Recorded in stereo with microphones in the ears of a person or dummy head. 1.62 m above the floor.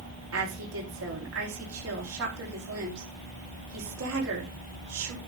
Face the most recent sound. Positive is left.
turn(degrees=-80)